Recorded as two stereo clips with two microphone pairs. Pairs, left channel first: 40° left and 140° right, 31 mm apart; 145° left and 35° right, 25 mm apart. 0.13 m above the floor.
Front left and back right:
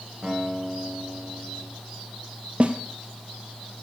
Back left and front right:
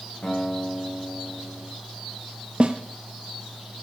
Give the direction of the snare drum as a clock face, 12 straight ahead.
3 o'clock.